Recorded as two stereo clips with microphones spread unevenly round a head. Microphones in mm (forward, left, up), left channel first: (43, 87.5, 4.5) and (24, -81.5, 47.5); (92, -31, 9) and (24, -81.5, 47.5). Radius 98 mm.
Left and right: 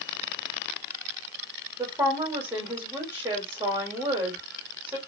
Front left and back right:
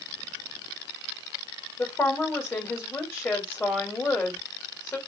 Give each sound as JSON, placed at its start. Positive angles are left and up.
{"t": 1.8, "sound": "a woman speaking", "azimuth_deg": -15, "distance_m": 1.8}